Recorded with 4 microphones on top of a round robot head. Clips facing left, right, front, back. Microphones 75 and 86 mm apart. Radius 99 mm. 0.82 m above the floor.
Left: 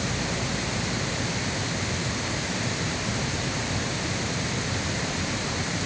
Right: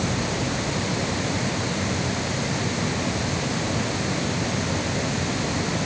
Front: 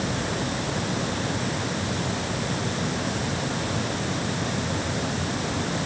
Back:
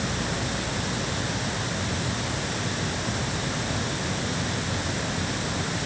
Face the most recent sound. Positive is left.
No sound to turn to.